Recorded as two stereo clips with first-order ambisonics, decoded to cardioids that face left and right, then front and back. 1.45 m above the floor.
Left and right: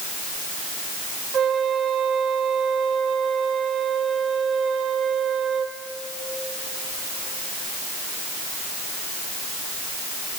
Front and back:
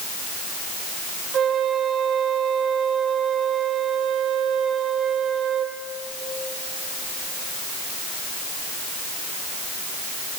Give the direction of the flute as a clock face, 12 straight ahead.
5 o'clock.